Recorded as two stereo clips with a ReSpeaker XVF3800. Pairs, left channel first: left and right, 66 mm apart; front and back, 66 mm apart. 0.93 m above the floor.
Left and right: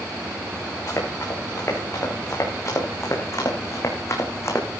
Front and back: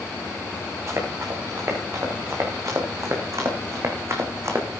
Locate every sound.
0.9 s running footsteps: 135° left, 6 m